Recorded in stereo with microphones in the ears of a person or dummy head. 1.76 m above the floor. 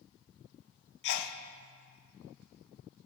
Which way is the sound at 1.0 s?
60° left (ahead or behind).